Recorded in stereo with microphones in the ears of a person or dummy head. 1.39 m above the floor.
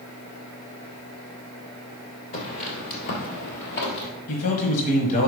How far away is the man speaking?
About 1.3 m.